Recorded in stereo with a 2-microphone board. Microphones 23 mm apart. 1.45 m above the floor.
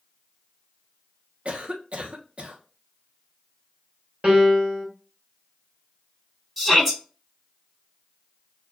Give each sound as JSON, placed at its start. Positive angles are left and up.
{"t": 1.4, "sound": "a cough", "side_deg": -50, "distance_m": 1.0}
{"t": 4.2, "sound": "a piano", "side_deg": -50, "distance_m": 2.0}
{"t": 6.6, "sound": "a shout", "side_deg": -5, "distance_m": 2.5}